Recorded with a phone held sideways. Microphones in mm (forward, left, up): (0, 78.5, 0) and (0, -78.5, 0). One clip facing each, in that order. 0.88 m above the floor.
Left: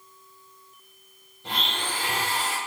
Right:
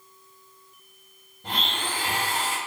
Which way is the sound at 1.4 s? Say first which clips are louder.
Right 1 dB; 50° right (ahead or behind).